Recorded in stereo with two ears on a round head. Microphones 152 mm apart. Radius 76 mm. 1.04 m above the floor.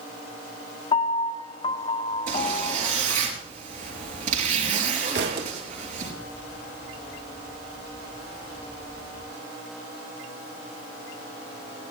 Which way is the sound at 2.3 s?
50° right (ahead or behind).